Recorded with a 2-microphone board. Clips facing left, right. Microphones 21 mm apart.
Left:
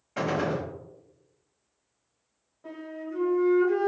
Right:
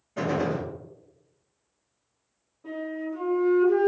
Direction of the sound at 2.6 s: 25° left (ahead or behind).